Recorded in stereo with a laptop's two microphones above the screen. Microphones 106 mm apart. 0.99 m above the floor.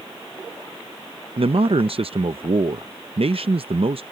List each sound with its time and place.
1.4 s a man speaking: 65° right (ahead or behind)